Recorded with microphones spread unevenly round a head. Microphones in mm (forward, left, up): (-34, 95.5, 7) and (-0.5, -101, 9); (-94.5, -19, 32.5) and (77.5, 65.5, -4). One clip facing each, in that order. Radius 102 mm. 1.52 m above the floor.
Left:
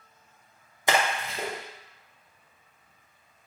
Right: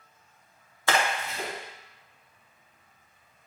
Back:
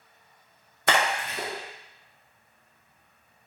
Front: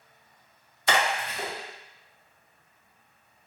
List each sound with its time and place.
0.9 s a splash: 175° left, 0.7 m